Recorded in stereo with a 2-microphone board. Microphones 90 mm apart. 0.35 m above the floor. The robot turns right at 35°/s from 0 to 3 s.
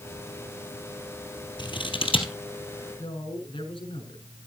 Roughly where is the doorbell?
I don't hear a doorbell.